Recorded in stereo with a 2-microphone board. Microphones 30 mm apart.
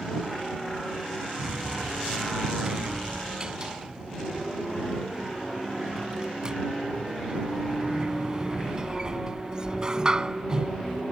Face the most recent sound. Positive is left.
turn(degrees=-25)  # may be behind; listen again after turning